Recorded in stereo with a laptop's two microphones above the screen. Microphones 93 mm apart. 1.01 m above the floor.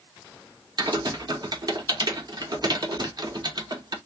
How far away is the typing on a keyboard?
About 0.8 m.